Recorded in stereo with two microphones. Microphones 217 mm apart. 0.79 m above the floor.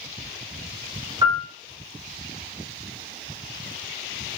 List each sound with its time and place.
1.2 s a piano: 20° right (ahead or behind), 1.0 m